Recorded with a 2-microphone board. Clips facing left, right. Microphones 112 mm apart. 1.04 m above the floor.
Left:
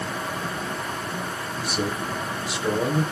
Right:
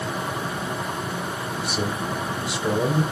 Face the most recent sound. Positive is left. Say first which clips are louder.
# left 1 dB
turn(degrees=-10)  # may be behind; listen again after turning